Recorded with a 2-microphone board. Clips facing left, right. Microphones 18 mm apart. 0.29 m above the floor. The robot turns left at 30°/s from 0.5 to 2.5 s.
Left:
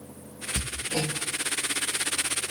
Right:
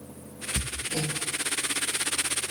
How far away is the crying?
I don't hear crying.